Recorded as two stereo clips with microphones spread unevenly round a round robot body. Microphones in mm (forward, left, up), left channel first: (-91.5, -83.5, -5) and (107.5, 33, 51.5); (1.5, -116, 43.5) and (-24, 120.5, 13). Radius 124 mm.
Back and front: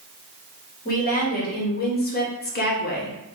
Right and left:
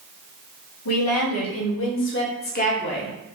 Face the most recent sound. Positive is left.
turn(degrees=-160)